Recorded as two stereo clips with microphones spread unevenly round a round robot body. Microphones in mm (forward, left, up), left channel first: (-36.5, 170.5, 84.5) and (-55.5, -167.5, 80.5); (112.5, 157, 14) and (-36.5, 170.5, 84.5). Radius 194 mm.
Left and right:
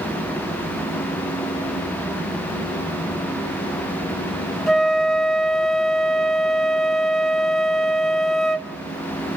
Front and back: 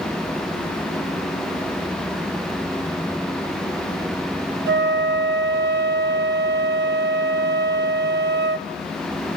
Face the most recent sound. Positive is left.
turn(degrees=180)